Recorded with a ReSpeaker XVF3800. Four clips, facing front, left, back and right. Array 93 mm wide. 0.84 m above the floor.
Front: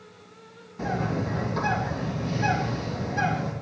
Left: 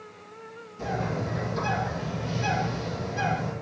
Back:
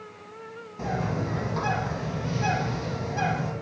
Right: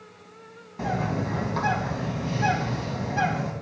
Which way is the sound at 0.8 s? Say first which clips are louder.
Right 2 dB, front 1 dB; 95° right.